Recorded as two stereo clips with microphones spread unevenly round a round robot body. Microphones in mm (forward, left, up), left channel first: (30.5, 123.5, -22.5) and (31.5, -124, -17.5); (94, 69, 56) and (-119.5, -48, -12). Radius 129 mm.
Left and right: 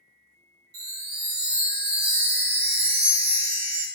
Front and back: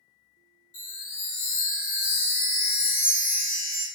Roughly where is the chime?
Ahead right.